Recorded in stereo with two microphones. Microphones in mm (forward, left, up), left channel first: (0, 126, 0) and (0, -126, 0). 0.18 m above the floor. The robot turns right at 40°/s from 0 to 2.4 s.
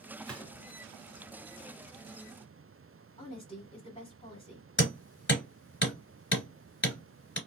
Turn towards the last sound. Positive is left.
turn(degrees=45)  # may be behind; listen again after turning